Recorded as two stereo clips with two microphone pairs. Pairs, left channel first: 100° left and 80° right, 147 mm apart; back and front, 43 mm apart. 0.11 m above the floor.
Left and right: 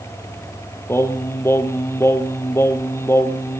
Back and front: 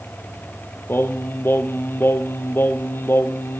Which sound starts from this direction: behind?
Singing, at 0.9 s.